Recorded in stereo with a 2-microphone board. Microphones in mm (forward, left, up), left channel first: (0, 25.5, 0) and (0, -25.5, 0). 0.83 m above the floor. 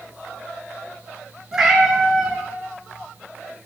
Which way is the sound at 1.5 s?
10° right (ahead or behind).